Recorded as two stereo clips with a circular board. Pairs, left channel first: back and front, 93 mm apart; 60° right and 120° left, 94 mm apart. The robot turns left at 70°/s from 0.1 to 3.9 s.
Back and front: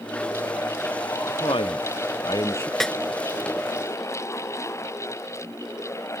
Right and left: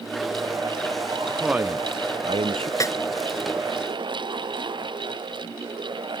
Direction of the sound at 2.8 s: 95° right.